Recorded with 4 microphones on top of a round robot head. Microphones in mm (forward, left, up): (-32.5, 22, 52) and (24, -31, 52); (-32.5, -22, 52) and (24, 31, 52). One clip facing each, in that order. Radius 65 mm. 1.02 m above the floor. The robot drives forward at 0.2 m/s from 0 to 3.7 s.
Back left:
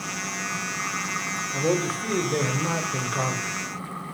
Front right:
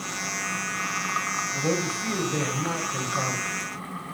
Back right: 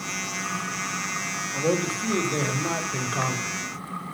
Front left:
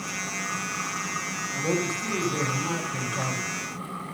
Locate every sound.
1.5 s a man speaking: 175° left, 4 m